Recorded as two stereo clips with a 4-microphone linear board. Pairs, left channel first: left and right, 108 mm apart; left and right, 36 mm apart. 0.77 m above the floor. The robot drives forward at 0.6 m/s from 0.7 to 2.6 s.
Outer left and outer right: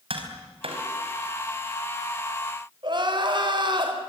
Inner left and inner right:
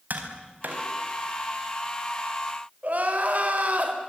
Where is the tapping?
65° right (ahead or behind), 4 m.